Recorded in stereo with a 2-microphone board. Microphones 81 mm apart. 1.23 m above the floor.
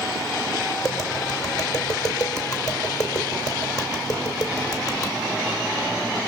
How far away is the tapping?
About 4 m.